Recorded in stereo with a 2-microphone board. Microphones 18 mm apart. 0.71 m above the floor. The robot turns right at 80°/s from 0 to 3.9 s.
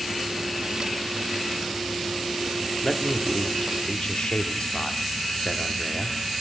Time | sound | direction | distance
2.8 | a man speaking | 25° left | 1.2 m